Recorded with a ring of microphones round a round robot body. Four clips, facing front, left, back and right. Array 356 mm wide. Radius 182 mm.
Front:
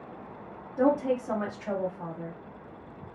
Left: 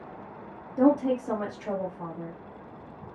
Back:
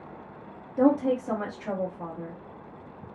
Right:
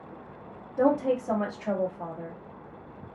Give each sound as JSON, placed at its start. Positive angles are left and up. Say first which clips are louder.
{"t": 0.8, "sound": "a woman speaking", "louder": "left 1 dB, back 2 dB", "azimuth_deg": 125, "distance_m": 1.9}